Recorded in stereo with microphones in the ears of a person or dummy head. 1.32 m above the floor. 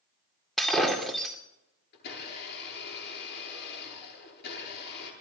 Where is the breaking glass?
Centre (ahead or behind), 2.5 m.